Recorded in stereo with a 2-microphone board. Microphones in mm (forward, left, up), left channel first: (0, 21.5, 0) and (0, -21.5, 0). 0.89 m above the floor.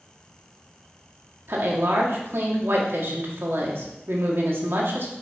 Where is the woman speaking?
65° right (ahead or behind), 1.8 m.